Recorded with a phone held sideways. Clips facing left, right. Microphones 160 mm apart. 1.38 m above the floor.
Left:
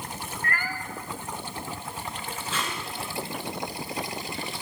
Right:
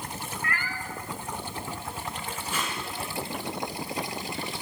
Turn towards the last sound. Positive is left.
turn(degrees=-15)  # may be behind; listen again after turning